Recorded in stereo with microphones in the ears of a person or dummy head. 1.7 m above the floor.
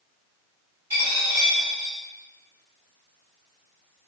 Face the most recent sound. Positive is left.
turn(degrees=-15)  # may be behind; listen again after turning